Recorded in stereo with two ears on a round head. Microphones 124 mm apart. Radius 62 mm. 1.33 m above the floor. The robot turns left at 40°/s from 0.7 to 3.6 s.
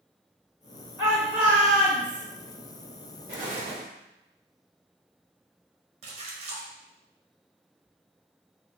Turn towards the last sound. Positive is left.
turn(degrees=-45)  # may be behind; listen again after turning